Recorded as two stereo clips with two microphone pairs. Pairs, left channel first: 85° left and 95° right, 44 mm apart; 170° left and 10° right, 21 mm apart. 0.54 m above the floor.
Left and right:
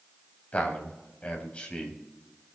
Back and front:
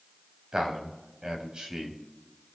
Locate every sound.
0.5 s a man speaking: 40° left, 4 m; by 2.0 s 30° left, 4 m